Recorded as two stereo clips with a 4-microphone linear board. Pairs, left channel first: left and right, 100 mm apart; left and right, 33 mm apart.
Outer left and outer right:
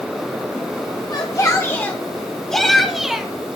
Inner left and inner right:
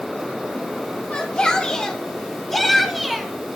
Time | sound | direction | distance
1.1 | a shout | 40° left (ahead or behind) | 1.1 m